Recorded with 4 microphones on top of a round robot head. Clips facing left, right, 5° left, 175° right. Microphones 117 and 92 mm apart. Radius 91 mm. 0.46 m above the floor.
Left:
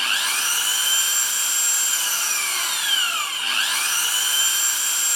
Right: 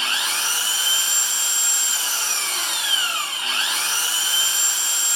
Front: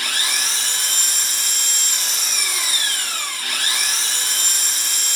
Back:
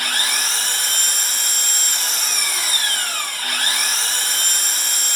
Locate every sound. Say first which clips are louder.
0.0 s an engine running: even, back 2 dB; 150° right, 1.1 m